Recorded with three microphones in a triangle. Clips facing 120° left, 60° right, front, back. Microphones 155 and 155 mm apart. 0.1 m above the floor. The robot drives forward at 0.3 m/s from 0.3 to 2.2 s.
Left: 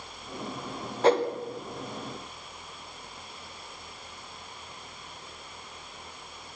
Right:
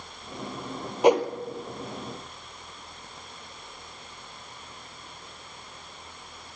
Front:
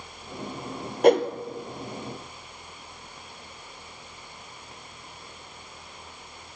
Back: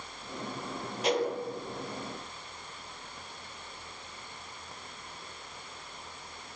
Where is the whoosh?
15° left, 1.9 m.